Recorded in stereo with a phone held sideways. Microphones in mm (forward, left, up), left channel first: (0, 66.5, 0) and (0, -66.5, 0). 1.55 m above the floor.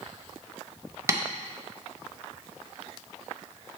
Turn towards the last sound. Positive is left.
turn(degrees=-20)  # may be behind; listen again after turning